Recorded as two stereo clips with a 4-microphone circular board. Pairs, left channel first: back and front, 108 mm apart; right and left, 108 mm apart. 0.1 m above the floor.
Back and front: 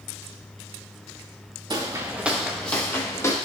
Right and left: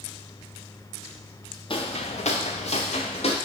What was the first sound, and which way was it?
Footsteps, 55° right.